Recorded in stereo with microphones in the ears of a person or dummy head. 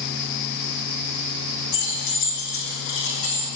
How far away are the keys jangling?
About 2 m.